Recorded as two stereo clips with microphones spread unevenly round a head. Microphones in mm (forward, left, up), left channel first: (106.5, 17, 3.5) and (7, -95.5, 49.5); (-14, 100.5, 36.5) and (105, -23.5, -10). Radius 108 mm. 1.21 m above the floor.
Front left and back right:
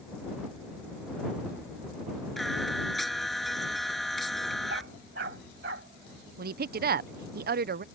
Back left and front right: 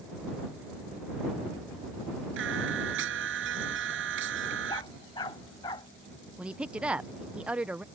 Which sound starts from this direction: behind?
A dog barking, at 4.7 s.